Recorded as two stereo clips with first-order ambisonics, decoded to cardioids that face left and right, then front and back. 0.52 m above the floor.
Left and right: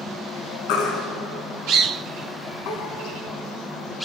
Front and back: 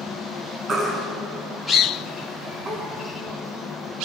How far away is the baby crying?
About 4 m.